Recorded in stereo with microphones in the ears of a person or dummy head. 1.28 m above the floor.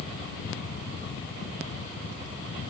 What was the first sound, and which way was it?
Only background noise.